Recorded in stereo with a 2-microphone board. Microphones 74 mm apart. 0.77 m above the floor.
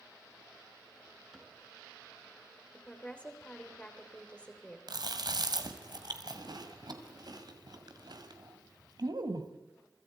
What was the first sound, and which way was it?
A cupboard door, 5° right (ahead or behind).